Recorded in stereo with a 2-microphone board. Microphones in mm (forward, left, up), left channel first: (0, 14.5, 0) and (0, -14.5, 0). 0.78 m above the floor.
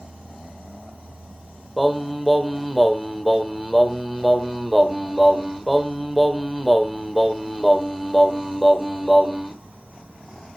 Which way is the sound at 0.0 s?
70° right (ahead or behind).